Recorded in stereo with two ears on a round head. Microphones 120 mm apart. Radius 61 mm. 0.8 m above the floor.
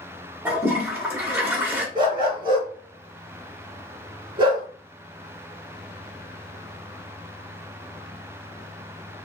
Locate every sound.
0.5 s a toilet flushing: 15° right (ahead or behind), 1.5 m
1.9 s a dog barking: 40° right (ahead or behind), 3 m